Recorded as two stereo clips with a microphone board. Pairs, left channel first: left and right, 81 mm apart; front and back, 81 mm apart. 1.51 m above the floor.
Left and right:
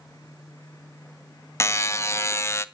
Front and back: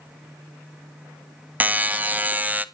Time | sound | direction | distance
1.6 | a buzzer | 120° left | 0.7 m